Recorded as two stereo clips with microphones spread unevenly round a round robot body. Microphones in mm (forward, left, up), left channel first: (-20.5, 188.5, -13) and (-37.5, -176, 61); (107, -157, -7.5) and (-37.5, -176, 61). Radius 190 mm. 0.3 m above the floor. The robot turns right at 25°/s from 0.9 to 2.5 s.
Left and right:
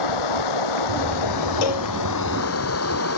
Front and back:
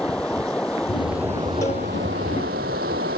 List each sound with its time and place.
0.0 s running water: 95° left; by 3.2 s 135° left
1.6 s a cowbell: 80° left; by 1.9 s 90° left